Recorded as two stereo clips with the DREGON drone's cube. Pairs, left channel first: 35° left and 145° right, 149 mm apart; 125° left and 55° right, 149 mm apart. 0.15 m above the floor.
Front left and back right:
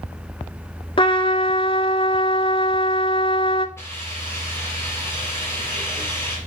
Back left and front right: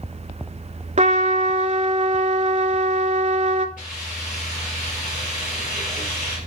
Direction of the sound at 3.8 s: 105° left.